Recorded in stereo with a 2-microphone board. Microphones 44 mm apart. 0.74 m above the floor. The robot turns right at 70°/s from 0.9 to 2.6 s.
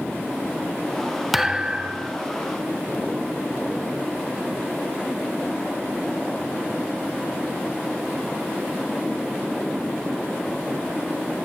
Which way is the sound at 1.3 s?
175° right.